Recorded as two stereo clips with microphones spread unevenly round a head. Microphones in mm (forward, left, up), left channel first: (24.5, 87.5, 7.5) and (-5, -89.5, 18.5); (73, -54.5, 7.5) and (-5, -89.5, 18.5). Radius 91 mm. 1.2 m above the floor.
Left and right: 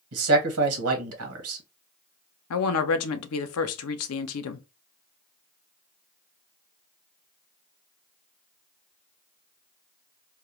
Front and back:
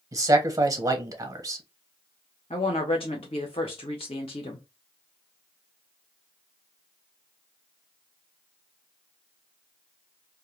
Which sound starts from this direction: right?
A man speaking, at 0.1 s.